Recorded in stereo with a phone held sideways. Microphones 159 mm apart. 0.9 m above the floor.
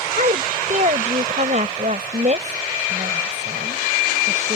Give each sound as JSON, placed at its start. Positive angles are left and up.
{"t": 0.1, "sound": "a woman speaking", "side_deg": -50}